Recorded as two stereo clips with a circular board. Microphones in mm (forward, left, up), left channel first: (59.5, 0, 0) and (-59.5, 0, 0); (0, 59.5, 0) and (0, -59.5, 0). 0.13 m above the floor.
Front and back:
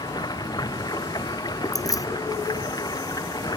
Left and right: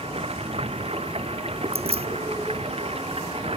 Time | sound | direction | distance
0.0 | running water | 55° right | ?
1.7 | keys jangling | 60° right | ?